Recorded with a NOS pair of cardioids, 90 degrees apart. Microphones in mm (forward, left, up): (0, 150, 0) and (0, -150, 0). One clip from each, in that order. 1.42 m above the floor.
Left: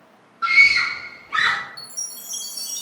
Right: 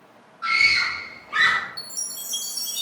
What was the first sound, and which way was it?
A scream, 15° left.